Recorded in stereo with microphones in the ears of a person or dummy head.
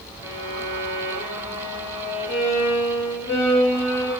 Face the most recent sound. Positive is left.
turn(degrees=30)  # may be behind; listen again after turning